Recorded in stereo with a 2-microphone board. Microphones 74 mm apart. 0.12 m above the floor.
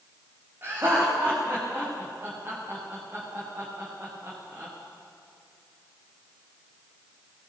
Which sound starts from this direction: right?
Laughter, at 0.6 s.